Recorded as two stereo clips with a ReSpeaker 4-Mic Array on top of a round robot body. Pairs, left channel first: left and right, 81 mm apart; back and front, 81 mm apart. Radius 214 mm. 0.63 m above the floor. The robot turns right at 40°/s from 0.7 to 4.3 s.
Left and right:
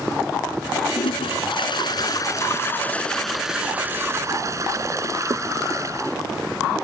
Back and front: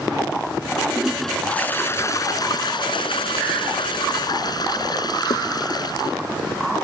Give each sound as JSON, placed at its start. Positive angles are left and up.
{"t": 1.0, "sound": "a toilet flushing", "azimuth_deg": 85}